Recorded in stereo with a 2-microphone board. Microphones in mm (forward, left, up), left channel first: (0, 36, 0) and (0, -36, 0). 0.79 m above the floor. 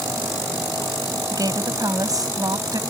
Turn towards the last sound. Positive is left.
turn(degrees=-55)  # may be behind; listen again after turning